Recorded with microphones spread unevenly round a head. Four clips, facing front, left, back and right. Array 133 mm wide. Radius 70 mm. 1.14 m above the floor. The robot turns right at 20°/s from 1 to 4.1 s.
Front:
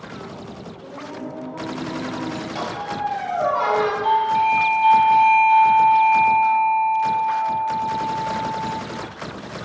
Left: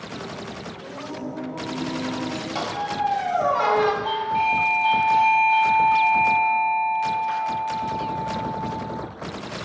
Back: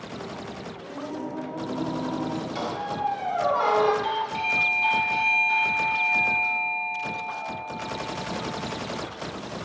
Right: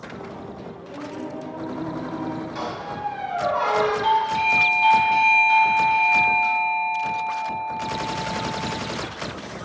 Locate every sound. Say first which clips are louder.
0.8 s singing: even, even; 155° left, 1.5 m; by 2.5 s 175° right, 1.5 m
2.5 s a squeak: left 4 dB, front 2 dB; 105° left, 2 m; by 3.9 s 135° left, 2 m
4.0 s a doorbell: right 2 dB, front 10 dB; 100° right, 3 m